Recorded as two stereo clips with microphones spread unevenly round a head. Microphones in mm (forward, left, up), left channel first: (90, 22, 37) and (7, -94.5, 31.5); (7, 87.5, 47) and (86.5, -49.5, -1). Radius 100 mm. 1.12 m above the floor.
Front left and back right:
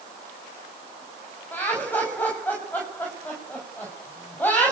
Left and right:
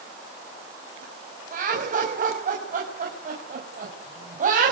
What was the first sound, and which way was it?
Laughter, 25° right.